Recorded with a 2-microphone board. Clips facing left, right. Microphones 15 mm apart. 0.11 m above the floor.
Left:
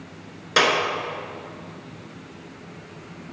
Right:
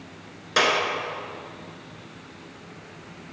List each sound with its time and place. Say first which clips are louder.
0.6 s a clap: left 2 dB; 15° left (ahead or behind), 0.9 m